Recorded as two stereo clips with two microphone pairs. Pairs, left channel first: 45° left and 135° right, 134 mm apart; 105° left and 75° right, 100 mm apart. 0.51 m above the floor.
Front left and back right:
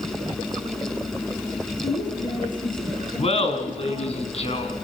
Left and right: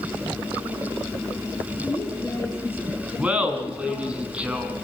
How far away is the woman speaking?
About 6.5 m.